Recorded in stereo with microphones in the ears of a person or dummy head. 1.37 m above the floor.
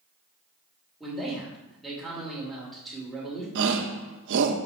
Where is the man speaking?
Centre (ahead or behind), 2.5 m.